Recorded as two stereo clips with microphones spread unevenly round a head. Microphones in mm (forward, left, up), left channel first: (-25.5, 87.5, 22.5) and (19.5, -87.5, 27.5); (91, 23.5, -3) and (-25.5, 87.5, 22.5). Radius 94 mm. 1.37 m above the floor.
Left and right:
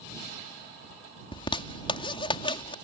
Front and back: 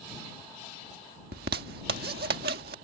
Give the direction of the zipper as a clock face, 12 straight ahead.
6 o'clock.